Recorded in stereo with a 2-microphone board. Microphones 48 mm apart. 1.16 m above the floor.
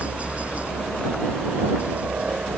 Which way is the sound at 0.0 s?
30° right (ahead or behind).